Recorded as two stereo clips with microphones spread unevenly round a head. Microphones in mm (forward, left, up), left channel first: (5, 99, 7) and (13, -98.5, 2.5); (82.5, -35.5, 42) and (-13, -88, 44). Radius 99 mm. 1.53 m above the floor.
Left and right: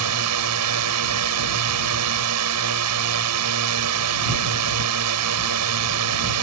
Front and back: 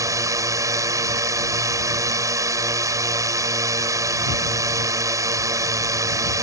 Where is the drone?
90° right.